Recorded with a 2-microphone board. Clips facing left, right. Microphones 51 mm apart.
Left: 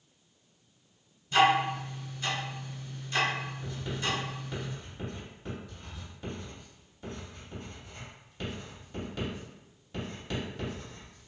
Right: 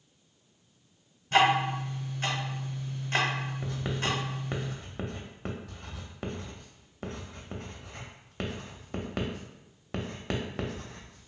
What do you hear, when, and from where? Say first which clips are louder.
1.3 s ticking: even; 55° right (ahead or behind), 0.9 m
3.6 s writing: right 3 dB; 80° right, 0.5 m